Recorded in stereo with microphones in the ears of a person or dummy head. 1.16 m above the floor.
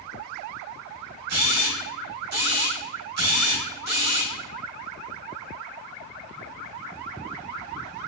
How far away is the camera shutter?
About 1.0 m.